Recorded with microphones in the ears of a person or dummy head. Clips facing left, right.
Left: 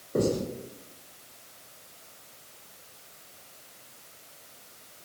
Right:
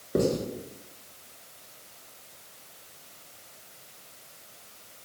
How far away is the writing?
About 1.1 m.